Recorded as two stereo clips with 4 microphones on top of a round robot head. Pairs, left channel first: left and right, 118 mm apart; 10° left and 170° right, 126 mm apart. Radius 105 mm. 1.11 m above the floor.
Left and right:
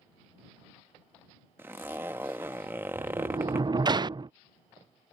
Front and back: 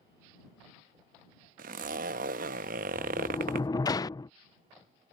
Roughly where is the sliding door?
Ahead right.